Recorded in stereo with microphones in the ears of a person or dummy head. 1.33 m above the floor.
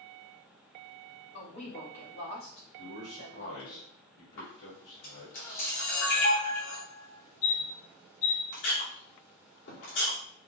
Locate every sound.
1.3 s a woman speaking: 80° left, 2.5 m
2.8 s a man speaking: 75° left (ahead or behind), 2.5 m
4.4 s a camera shutter: 75° left (ahead or behind), 2.5 m